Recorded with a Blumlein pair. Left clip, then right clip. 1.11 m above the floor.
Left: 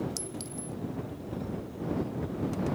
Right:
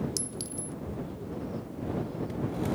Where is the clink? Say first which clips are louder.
Right 2 dB; 15° right.